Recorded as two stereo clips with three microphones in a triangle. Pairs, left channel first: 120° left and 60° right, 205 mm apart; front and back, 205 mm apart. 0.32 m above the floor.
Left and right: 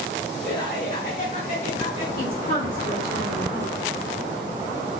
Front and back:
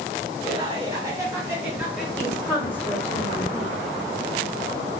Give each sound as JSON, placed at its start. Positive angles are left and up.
{"t": 0.4, "sound": "laughter", "azimuth_deg": 120, "distance_m": 2.5}
{"t": 2.2, "sound": "a woman speaking", "azimuth_deg": 80, "distance_m": 2.5}